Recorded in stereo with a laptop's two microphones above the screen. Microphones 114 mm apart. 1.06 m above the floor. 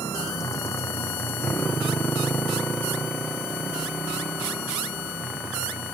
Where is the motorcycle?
30° left (ahead or behind); by 5.9 s 5° right (ahead or behind).